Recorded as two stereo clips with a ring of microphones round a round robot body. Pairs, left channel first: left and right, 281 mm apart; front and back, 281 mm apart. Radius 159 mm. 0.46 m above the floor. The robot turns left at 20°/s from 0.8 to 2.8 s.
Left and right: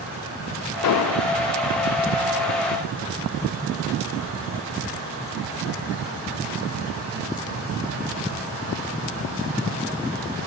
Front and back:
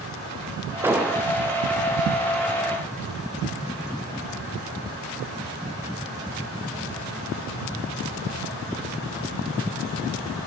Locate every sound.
0.8 s an explosion: 100° left, 0.5 m; by 1.3 s 90° left, 0.5 m